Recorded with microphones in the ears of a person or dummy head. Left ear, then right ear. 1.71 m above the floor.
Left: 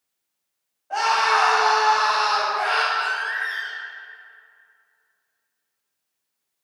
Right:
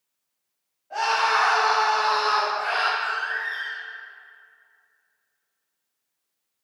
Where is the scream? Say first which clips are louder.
Left 3 dB; 40° left (ahead or behind), 2.5 m; by 2.9 s 70° left (ahead or behind), 2.5 m.